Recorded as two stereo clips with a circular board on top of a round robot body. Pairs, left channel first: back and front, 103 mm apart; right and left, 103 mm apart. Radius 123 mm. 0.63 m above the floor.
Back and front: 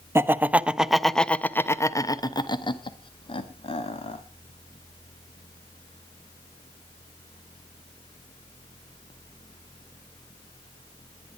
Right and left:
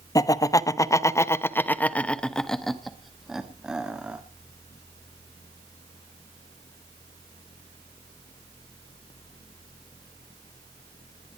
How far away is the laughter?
About 1.1 m.